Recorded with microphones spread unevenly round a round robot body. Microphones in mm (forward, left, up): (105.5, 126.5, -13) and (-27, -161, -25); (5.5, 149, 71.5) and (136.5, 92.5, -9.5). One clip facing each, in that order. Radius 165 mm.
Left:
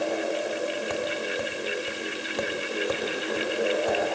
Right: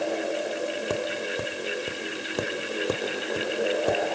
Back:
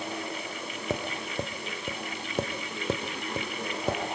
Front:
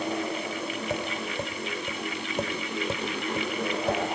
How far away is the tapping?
About 1.9 m.